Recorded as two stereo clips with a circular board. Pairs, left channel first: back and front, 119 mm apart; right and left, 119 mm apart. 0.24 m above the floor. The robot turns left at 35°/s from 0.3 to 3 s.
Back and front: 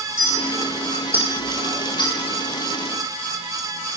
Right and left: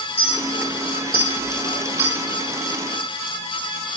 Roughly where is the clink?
Right.